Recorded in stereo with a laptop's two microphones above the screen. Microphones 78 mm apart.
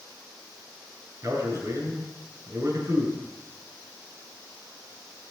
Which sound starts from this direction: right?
A man speaking, at 1.2 s.